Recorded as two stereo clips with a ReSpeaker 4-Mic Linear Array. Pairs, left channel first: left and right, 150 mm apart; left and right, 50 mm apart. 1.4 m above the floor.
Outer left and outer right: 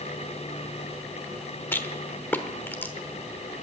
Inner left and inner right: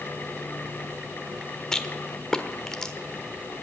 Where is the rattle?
15° left (ahead or behind), 1.1 m.